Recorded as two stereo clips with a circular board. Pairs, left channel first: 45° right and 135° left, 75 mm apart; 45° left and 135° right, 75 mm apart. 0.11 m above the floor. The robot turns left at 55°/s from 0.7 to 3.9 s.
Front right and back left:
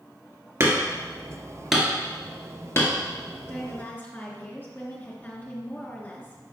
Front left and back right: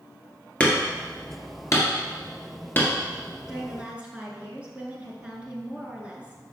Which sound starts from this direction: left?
Hammering, at 0.6 s.